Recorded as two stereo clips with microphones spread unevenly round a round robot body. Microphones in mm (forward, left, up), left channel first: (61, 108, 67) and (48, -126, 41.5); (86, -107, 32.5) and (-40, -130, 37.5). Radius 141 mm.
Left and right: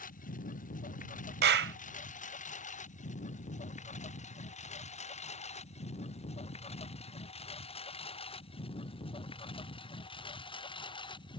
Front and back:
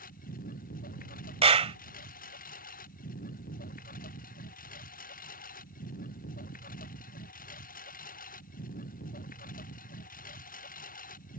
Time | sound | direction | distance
0.0 | a lawn mower | 30° left | ?
1.4 | a clap | 135° right | ?